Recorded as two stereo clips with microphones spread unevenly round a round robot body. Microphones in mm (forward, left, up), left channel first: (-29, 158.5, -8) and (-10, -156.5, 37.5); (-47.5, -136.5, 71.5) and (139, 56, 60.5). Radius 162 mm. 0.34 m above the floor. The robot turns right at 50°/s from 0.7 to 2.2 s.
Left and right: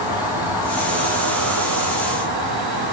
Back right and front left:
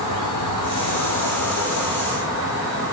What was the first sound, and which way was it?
An insect, 170° right.